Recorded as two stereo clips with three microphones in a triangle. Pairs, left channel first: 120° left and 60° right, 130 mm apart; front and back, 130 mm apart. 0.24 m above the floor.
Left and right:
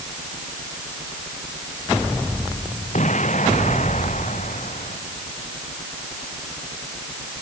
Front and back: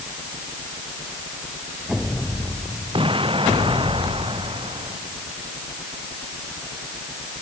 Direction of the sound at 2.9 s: 135° left.